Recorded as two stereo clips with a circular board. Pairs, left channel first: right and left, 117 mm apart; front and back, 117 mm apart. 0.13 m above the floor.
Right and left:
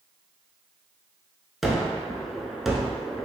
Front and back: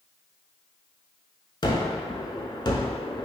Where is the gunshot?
5° left, 0.6 m.